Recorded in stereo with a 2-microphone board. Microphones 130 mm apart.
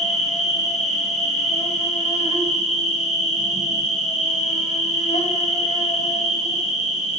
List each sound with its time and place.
0.0 s an insect: 60° left (ahead or behind), 1.2 m